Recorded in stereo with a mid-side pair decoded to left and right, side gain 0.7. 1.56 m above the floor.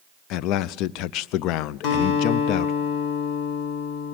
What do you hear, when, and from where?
0.3 s a man speaking: 65° left, 0.5 m
1.8 s a guitar: 60° left, 6.5 m